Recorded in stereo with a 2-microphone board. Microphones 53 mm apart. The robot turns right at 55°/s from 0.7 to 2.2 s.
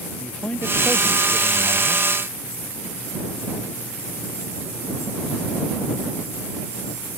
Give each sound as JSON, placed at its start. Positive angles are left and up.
{"t": 0.2, "sound": "a man speaking", "azimuth_deg": 160}